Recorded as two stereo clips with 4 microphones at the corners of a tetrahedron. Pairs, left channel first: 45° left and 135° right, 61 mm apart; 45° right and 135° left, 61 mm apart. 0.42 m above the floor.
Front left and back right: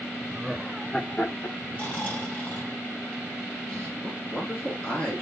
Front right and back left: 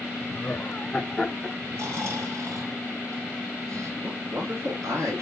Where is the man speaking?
110° left, 5 m.